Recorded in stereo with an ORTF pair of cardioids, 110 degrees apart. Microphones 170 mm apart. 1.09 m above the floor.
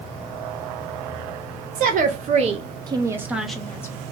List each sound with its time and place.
1.8 s a woman speaking: 60° right, 1.1 m; by 4.0 s 20° left, 0.8 m